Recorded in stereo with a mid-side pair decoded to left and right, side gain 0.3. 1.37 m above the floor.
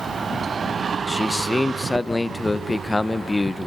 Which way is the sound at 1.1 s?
30° left.